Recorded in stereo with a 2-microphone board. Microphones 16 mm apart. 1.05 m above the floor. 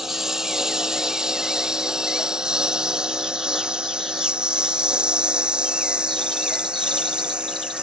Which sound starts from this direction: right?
A lawn mower, at 0.0 s.